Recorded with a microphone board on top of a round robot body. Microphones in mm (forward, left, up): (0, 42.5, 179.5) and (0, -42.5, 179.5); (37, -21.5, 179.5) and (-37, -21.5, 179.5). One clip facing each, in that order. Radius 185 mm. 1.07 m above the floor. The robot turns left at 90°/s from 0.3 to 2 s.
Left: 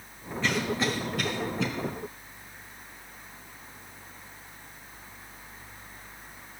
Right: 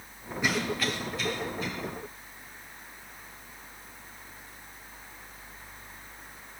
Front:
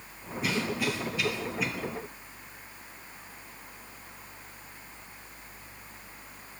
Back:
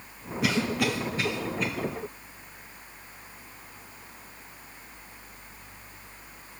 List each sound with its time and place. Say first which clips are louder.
0.4 s a cough: left 1 dB, back 4 dB; 165° right, 1.2 m; by 1.7 s 80° left, 1.2 m